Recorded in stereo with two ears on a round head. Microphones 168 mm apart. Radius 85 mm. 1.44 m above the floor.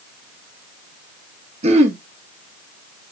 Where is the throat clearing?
35° right (ahead or behind), 0.9 m.